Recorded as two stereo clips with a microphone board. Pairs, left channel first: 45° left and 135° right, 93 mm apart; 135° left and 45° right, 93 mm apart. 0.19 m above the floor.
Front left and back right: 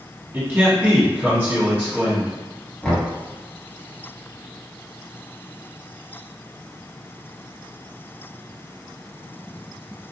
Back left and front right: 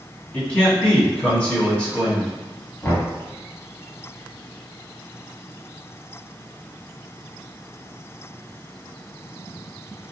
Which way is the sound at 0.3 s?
165° right.